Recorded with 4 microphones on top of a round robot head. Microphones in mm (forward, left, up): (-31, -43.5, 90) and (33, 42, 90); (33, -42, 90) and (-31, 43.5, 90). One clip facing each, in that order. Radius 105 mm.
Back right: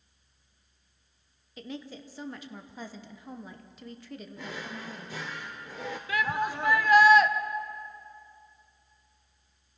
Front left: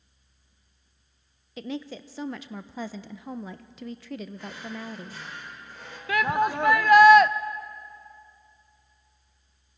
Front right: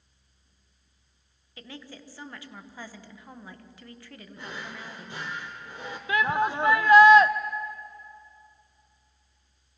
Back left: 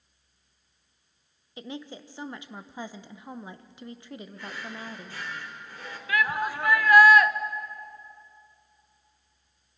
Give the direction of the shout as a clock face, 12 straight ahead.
11 o'clock.